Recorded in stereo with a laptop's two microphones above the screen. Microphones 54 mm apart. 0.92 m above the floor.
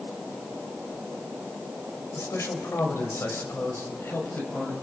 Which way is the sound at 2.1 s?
70° left (ahead or behind).